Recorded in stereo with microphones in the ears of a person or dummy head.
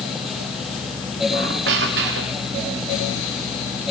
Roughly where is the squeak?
Right.